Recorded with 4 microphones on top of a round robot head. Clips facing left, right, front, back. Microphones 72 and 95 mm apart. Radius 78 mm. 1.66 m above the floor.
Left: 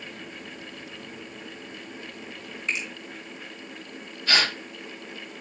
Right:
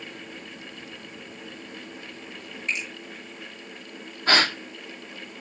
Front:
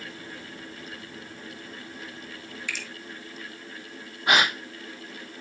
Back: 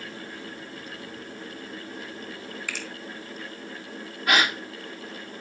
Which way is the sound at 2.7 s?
135° left.